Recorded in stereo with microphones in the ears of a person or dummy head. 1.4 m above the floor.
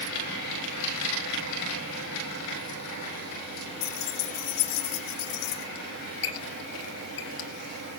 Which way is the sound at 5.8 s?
65° left (ahead or behind).